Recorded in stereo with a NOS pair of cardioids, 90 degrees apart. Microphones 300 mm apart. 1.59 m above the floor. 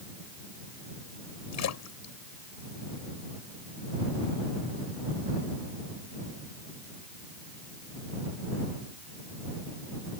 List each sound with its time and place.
1.5 s a splash: 60° left